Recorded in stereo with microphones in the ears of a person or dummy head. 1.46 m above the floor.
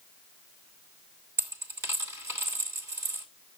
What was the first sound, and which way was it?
A dropped coin, 10° right (ahead or behind).